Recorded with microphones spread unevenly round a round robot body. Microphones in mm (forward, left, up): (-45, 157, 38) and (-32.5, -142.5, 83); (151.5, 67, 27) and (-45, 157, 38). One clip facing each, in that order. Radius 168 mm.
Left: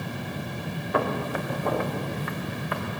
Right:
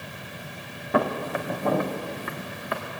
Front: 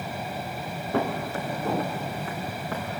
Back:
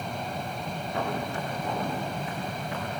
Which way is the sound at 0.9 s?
85° right.